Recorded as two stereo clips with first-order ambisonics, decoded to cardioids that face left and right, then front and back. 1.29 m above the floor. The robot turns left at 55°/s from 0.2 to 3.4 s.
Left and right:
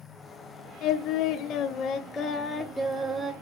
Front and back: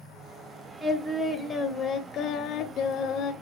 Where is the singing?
95° left, 1.3 m; by 3.3 s 40° right, 1.3 m.